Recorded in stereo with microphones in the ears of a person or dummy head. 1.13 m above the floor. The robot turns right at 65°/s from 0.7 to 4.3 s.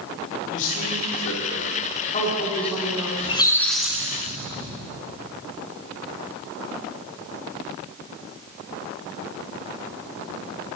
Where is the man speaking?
50° left, 2.5 m; by 3.1 s 160° right, 2.5 m.